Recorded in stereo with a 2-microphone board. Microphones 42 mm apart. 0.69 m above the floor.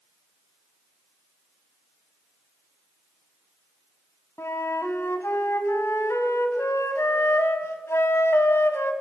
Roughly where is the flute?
Left.